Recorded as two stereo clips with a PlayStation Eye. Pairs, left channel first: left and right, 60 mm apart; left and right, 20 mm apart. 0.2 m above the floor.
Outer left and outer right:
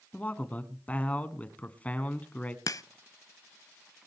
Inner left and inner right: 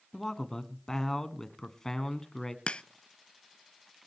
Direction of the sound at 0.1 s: 25° left (ahead or behind).